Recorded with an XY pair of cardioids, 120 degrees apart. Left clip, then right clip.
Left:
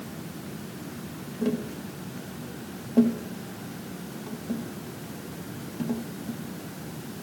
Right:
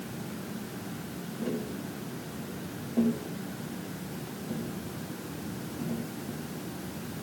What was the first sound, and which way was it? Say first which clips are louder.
Tapping: left 5 dB; 40° left.